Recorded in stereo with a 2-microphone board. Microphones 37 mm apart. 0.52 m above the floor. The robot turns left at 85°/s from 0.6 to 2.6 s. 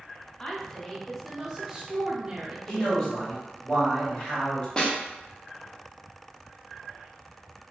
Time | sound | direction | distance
0.4 | a woman speaking | 15° left (ahead or behind) | 0.7 m
2.7 | a man speaking | 15° left (ahead or behind) | 1.6 m
4.8 | a snare drum | 25° left (ahead or behind) | 0.6 m